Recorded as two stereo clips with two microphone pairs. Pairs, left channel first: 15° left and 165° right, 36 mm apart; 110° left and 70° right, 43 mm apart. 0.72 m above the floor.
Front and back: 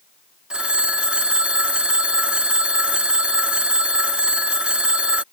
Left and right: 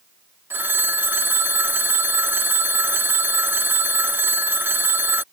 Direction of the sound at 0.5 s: 105° right.